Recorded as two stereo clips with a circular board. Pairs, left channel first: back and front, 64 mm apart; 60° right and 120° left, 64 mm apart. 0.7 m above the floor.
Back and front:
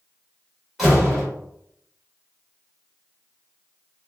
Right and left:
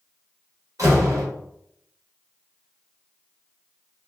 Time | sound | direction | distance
0.8 | a door slam | 90° left | 2 m